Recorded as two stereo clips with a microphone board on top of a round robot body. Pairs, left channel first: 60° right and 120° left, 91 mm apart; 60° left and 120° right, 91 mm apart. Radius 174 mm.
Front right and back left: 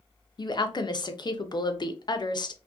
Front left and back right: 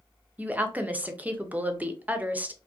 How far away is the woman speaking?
About 0.6 m.